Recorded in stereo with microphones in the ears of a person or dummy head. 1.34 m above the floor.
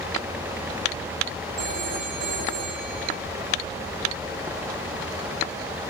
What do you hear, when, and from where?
1.6 s a phone ringing: 50° right (ahead or behind), 1.8 m